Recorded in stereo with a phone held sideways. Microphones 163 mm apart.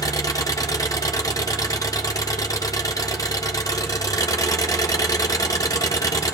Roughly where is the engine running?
Left.